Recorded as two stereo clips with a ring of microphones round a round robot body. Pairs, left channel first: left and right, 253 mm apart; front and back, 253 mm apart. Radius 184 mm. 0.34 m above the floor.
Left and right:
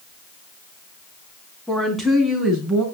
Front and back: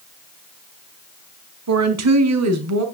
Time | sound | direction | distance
1.7 | a woman speaking | straight behind | 3.5 m